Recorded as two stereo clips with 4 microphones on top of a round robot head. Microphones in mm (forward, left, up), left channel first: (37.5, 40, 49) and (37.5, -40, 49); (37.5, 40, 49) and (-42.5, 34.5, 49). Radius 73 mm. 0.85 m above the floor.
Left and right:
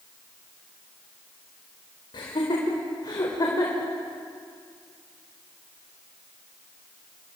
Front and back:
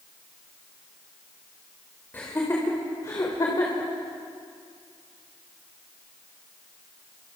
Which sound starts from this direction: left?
Laughter, at 2.1 s.